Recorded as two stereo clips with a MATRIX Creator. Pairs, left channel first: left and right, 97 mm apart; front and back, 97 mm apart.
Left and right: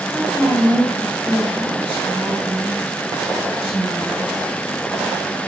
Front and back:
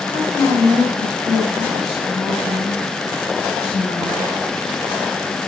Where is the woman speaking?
15° right, 3.5 m.